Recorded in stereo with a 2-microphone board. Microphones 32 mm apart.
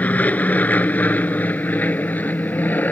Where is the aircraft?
55° left (ahead or behind); by 2.9 s 65° left (ahead or behind).